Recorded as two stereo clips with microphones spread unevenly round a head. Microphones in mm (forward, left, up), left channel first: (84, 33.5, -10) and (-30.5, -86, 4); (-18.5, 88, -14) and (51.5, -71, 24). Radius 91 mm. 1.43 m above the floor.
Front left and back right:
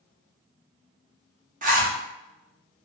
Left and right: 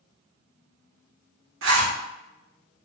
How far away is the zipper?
About 0.7 m.